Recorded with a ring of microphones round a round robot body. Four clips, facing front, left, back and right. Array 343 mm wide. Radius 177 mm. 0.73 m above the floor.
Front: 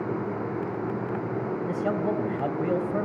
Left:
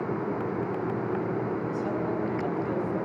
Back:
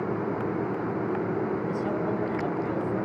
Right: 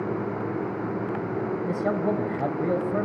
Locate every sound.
1.7 s a man speaking: 60° right, 3.5 m